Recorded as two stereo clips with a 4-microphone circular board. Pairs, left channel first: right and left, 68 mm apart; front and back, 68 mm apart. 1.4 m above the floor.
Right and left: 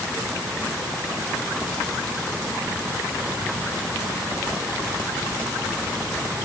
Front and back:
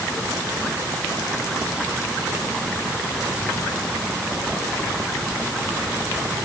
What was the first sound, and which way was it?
Only background noise.